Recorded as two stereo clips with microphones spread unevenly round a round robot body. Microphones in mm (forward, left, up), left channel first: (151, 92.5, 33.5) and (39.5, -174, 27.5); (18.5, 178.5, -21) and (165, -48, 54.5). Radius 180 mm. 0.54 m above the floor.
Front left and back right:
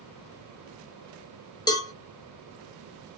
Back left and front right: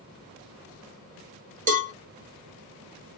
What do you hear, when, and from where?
1.7 s a cowbell: 5° left, 1.2 m